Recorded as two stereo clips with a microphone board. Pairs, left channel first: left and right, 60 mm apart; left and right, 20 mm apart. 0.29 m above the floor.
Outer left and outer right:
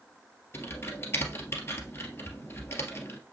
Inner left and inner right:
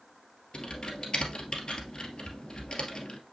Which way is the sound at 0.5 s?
45° left (ahead or behind).